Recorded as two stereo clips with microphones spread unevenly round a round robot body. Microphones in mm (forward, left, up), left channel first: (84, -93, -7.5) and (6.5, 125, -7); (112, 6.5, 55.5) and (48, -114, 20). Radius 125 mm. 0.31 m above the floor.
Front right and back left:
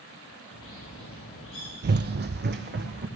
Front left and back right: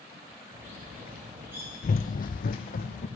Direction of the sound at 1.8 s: 65° left.